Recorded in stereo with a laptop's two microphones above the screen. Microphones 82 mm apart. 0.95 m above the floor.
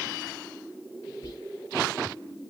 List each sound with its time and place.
1.2 s whispering: 45° left (ahead or behind), 0.8 m